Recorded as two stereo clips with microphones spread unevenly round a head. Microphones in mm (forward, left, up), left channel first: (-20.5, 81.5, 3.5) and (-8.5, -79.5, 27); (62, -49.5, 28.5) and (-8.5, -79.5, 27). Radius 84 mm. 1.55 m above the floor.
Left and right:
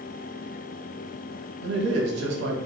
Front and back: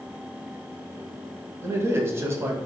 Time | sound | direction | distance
1.6 | a man speaking | 100° right | 0.8 m